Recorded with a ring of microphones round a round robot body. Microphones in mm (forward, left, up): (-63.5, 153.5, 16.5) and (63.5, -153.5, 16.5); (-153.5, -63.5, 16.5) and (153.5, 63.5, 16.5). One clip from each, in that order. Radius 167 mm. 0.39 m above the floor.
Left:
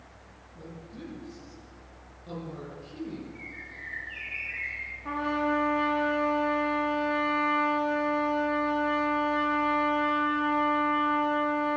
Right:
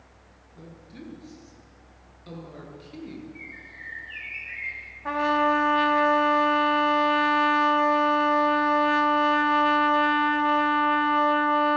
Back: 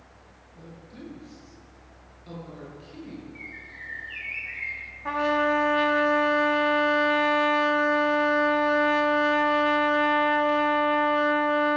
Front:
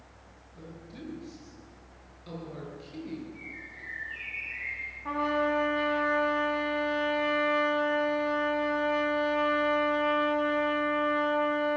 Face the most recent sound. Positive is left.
turn(degrees=-105)